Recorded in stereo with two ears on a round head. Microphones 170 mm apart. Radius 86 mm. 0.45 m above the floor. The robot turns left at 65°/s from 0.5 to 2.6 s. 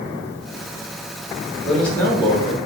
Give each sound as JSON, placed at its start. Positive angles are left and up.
{"t": 1.6, "sound": "a man speaking", "azimuth_deg": -175, "distance_m": 1.3}